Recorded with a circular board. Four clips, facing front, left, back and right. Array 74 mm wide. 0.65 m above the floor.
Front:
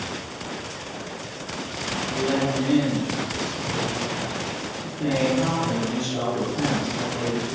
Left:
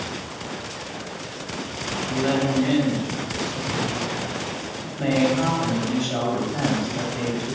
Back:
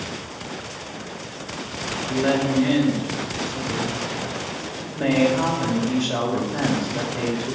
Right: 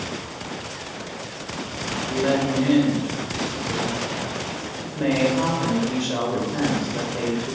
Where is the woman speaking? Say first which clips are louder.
Right 1 dB, back 3 dB; 145° right, 3 m.